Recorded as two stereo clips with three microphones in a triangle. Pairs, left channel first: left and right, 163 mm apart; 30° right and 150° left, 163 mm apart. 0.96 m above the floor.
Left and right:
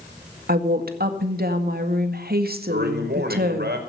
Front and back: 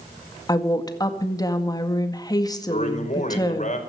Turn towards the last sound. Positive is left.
turn(degrees=-75)